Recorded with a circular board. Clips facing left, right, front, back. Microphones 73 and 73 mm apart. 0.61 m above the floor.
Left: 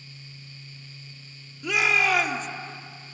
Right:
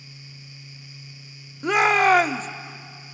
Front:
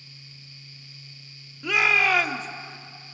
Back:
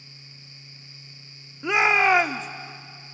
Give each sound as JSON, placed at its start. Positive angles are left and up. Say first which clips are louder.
{"t": 1.6, "sound": "a shout", "louder": "right 6 dB, back 3 dB", "azimuth_deg": -120, "distance_m": 0.9}